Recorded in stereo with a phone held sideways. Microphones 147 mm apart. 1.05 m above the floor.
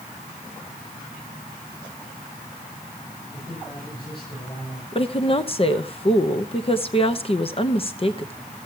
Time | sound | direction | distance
3.3 | a man speaking | 35° left (ahead or behind) | 7.5 m
4.9 | a woman speaking | 40° left (ahead or behind) | 0.9 m